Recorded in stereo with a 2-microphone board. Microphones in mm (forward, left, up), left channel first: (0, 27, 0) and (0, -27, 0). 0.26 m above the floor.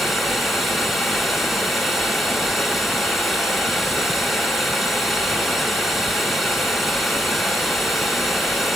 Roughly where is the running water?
Centre.